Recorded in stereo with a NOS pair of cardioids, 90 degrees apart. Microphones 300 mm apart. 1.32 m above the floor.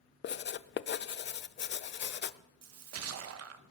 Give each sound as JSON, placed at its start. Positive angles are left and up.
{"t": 0.2, "sound": "writing", "azimuth_deg": 35, "distance_m": 0.6}
{"t": 2.6, "sound": "a splash", "azimuth_deg": -50, "distance_m": 1.3}